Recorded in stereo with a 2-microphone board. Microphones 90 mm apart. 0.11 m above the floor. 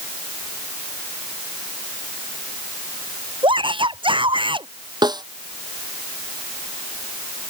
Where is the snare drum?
55° right (ahead or behind).